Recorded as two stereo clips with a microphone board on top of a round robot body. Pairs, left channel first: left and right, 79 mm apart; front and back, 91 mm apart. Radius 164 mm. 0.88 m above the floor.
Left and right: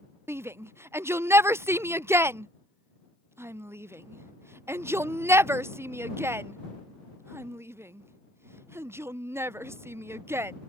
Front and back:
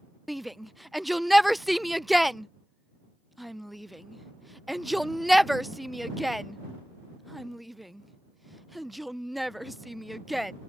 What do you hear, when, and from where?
0.3 s a shout: 90° right